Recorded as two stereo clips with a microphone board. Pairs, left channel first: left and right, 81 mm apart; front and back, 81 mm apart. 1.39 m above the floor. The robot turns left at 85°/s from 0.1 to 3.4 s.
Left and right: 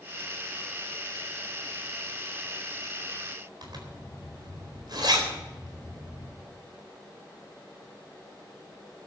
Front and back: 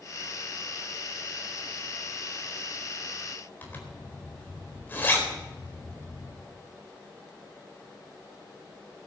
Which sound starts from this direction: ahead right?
A zipper, at 3.6 s.